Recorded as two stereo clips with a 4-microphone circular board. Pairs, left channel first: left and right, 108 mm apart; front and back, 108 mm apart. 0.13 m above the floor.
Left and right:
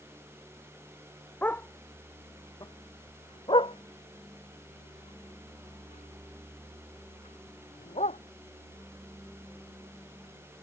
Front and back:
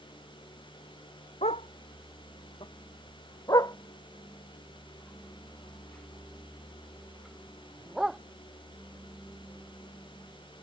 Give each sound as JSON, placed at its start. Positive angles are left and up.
{"t": 1.4, "sound": "a dog barking", "azimuth_deg": 15}